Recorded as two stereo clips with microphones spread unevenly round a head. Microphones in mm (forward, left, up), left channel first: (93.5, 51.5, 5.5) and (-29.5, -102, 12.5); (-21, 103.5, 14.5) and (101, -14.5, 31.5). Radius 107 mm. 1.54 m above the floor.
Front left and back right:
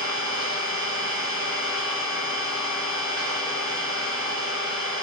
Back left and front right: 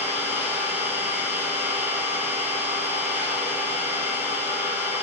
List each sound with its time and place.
0.0 s an engine running: 160° right, 5 m